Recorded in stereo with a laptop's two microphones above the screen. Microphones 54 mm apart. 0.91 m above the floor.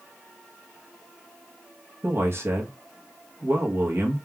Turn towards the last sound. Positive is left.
turn(degrees=-50)  # may be behind; listen again after turning